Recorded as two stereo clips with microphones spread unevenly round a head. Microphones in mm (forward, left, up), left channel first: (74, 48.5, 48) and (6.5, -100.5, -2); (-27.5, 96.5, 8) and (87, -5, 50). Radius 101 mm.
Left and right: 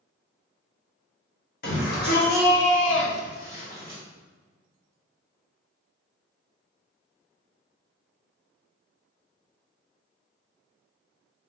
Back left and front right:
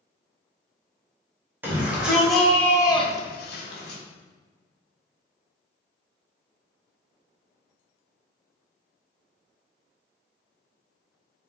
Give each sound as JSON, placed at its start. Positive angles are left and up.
{"t": 1.6, "sound": "a shout", "azimuth_deg": 35, "distance_m": 1.5}